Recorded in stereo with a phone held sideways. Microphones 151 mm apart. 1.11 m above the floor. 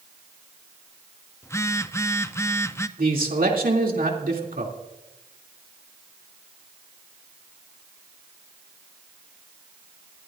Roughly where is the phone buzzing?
Centre.